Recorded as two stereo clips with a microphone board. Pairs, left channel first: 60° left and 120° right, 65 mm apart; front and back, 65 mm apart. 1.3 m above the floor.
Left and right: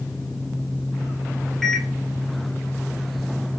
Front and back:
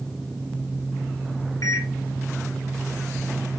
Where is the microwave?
25° right, 4.5 m.